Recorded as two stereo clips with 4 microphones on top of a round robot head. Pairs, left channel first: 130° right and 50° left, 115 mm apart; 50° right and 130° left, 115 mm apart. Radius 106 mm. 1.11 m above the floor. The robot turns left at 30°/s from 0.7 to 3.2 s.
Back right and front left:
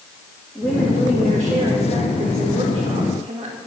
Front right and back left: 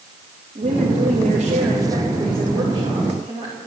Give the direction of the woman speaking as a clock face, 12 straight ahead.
6 o'clock.